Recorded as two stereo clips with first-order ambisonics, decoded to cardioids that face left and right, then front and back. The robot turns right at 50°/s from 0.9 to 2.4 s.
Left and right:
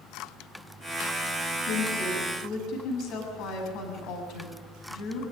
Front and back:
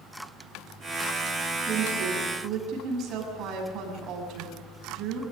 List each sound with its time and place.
1.7 s a woman speaking: 90° left, 7 m; by 5.2 s 130° left, 7 m